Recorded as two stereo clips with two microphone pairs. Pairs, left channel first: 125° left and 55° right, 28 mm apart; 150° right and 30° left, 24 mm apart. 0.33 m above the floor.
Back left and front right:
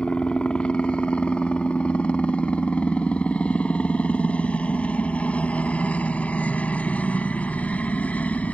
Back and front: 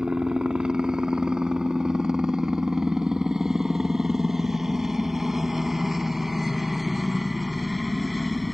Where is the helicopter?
80° left; by 8.6 s 120° left.